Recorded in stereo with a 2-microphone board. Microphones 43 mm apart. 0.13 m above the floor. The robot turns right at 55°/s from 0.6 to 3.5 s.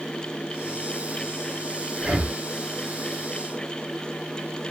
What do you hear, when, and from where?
2.0 s breathing: 5° right (ahead or behind), 0.6 m; by 2.4 s 15° right (ahead or behind), 0.6 m